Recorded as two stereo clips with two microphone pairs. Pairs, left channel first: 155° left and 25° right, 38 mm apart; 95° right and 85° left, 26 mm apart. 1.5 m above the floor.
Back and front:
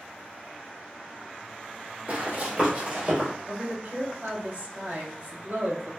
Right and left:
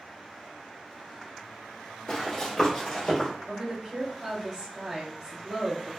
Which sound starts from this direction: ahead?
A woman speaking, at 3.5 s.